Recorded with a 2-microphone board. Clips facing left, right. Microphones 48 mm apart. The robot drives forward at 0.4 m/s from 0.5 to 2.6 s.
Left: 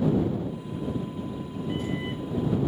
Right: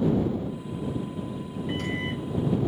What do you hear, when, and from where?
1.7 s a microwave: 70° right (ahead or behind), 0.5 m; by 2.6 s 45° right (ahead or behind), 0.7 m